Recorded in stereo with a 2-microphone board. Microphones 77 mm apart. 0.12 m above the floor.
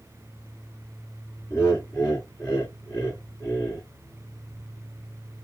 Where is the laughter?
45° left (ahead or behind), 2 m.